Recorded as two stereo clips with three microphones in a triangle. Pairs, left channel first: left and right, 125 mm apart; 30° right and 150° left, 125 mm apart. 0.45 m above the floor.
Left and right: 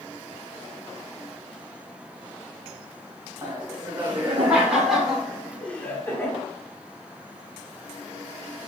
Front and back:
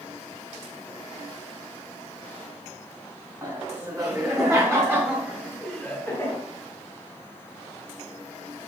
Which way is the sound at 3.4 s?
160° right.